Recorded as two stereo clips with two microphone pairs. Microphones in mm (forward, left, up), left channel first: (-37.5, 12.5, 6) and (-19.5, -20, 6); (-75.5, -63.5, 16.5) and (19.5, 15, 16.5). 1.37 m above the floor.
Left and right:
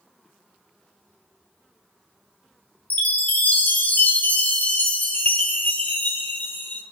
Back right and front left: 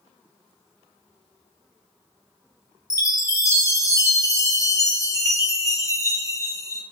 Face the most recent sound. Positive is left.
turn(degrees=160)